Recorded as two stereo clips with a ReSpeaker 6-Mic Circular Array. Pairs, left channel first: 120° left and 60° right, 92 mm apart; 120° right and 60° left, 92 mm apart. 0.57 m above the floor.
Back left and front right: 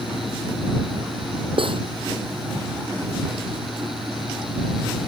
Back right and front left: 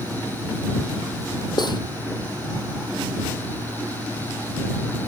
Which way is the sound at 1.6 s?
80° right.